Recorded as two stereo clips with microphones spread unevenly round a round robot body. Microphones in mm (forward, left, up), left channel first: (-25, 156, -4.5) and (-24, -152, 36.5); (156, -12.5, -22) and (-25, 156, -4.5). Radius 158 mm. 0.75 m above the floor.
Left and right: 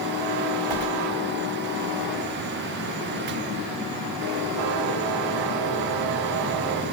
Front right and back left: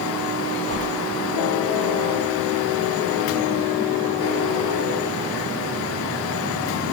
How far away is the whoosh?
About 4 m.